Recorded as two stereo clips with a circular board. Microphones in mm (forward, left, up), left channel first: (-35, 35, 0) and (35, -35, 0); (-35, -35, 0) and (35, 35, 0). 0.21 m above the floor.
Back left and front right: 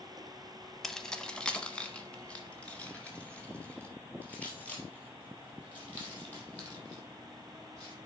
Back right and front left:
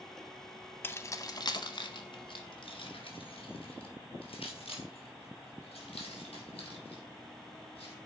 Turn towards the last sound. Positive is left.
turn(degrees=-150)